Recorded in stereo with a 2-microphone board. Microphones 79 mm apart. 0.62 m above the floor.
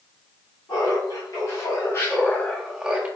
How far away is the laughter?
About 1.7 m.